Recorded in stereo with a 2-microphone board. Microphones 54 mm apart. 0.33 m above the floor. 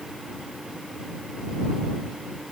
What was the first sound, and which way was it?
Only background noise.